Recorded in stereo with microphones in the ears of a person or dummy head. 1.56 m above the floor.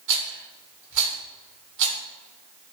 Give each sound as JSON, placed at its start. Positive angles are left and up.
{"t": 0.1, "sound": "a rattle", "side_deg": -65, "distance_m": 1.4}